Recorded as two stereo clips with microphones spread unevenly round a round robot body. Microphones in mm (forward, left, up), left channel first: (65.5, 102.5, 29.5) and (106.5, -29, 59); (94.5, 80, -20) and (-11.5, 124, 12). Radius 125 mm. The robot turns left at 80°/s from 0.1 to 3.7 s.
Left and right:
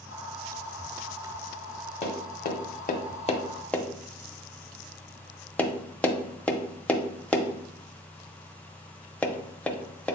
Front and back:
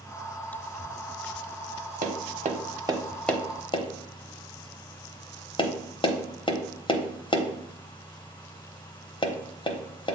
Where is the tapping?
160° left, 0.8 m; by 10.2 s 25° left, 0.8 m.